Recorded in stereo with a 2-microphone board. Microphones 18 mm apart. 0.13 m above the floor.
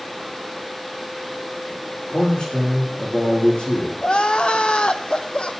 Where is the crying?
70° left (ahead or behind), 1.2 m.